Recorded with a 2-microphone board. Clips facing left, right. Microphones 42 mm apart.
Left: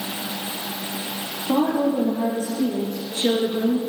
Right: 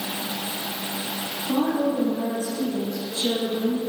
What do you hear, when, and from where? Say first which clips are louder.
1.5 s a woman speaking: left 3 dB; 35° left (ahead or behind), 5 m; by 3.8 s 50° left (ahead or behind), 2.5 m